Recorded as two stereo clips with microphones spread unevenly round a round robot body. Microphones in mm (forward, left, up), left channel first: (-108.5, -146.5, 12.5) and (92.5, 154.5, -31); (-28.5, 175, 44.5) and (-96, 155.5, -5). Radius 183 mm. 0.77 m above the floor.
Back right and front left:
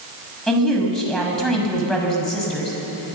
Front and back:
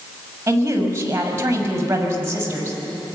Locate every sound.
0.5 s a woman speaking: 150° left, 6 m